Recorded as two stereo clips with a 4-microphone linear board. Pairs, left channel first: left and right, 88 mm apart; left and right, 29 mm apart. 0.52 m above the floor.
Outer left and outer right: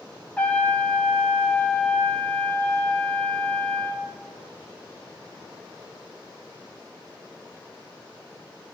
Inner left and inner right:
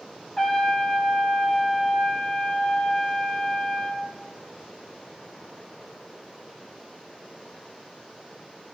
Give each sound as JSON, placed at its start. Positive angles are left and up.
{"t": 0.4, "sound": "a trumpet", "side_deg": 20, "distance_m": 1.7}